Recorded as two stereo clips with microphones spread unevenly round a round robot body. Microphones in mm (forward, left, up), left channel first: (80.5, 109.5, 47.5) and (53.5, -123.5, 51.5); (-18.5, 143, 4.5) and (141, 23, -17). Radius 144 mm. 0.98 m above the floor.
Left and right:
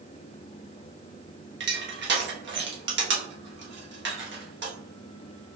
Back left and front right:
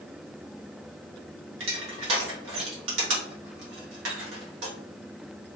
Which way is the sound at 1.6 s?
55° right.